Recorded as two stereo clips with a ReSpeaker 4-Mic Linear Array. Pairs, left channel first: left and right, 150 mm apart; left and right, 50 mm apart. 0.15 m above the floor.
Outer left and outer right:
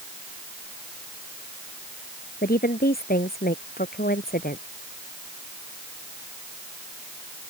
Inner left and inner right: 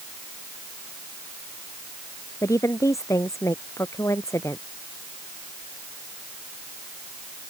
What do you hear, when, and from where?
2.4 s a woman speaking: 80° left; by 4.6 s 85° left